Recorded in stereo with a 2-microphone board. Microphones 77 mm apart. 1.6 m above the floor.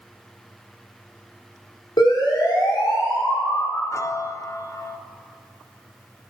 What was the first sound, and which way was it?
A siren, 85° left.